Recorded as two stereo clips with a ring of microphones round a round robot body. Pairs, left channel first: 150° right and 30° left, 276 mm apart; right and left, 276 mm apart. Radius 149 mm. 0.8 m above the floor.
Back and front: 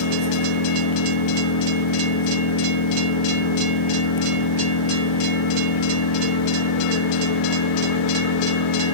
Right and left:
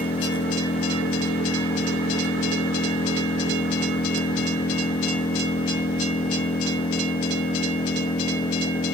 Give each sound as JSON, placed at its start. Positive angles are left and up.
{"t": 0.0, "sound": "an engine running", "azimuth_deg": -160}